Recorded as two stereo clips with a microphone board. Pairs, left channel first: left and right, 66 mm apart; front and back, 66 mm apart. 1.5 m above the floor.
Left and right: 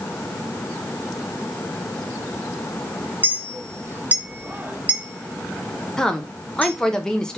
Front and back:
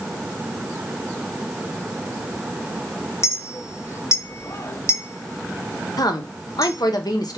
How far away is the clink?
About 0.5 m.